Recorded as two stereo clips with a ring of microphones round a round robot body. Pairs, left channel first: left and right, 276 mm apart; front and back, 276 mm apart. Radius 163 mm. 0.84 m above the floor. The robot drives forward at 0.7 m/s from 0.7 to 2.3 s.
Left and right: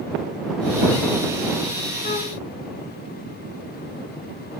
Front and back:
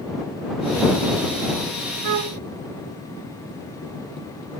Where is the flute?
155° left, 0.9 m; by 2.4 s 160° left, 1.0 m.